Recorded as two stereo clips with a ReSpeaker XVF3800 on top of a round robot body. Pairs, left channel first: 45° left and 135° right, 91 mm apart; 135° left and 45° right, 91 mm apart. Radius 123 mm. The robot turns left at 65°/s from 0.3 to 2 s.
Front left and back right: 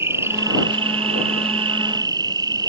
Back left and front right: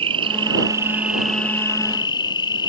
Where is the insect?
75° right; by 2.7 s 175° left.